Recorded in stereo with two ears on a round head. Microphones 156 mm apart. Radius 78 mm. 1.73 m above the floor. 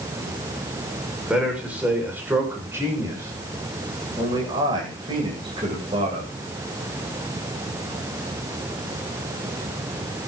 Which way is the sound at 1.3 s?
5° right (ahead or behind).